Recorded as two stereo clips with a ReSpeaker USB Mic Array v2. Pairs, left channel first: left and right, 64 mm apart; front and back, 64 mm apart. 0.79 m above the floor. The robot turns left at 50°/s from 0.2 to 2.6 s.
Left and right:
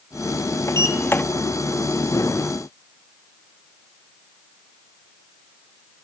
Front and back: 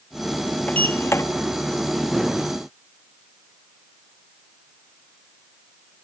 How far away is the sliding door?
About 1.0 m.